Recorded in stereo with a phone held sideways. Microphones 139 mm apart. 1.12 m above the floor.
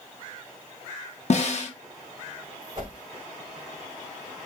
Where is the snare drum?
55° left (ahead or behind), 1.1 m.